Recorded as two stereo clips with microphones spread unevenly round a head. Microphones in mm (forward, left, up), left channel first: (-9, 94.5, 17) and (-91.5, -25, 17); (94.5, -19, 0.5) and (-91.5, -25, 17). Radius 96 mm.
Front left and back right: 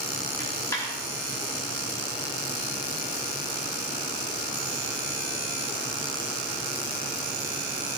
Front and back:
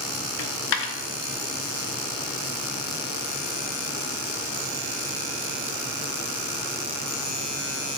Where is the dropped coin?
20° right, 0.9 m.